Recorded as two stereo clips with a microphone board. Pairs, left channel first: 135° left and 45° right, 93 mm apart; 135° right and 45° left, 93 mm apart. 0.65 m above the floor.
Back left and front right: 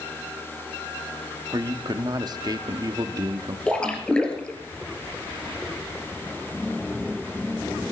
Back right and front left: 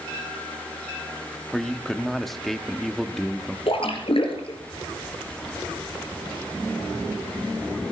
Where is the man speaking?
50° right, 1.0 m.